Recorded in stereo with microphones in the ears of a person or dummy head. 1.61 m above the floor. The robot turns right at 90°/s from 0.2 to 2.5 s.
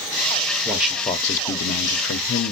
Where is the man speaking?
25° right, 0.7 m; by 2.5 s 145° left, 0.7 m.